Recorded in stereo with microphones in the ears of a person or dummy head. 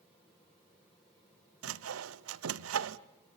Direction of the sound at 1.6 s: 80° right.